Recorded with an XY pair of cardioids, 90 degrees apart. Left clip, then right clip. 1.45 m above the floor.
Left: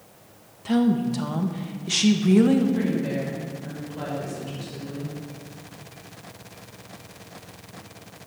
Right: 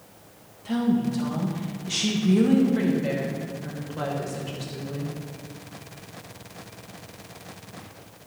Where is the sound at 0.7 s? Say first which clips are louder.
Left 3 dB; 45° left, 2 m.